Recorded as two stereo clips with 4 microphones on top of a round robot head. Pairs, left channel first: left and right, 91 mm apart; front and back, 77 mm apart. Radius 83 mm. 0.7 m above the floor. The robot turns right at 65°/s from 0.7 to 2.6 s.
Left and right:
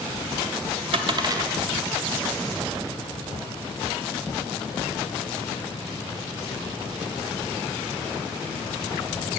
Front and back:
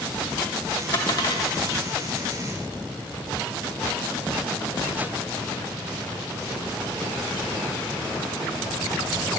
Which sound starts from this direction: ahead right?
A dropped coin, at 0.9 s.